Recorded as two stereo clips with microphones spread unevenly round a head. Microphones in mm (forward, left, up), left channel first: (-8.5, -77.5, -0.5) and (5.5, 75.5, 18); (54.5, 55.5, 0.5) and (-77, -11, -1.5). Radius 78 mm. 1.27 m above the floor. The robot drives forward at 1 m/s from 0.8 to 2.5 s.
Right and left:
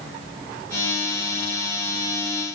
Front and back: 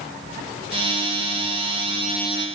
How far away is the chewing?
I don't hear chewing.